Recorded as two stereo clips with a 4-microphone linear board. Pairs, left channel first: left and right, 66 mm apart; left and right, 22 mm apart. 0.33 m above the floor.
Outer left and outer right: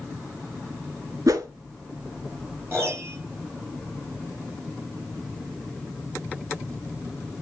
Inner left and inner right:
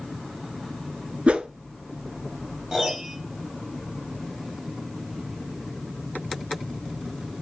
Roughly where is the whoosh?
Right.